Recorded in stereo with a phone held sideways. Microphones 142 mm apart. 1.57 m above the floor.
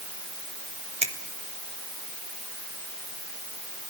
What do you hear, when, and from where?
1.0 s a finger snap: 50° right (ahead or behind), 1.6 m